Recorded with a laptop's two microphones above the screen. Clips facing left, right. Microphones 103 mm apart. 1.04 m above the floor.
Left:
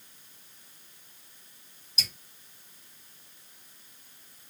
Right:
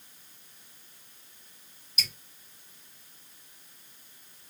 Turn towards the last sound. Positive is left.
turn(degrees=35)  # may be behind; listen again after turning